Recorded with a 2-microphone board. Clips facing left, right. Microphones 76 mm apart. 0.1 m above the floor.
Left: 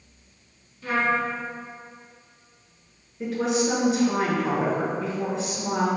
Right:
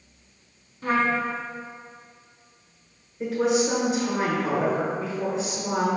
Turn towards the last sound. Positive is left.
turn(degrees=0)  # may be behind; listen again after turning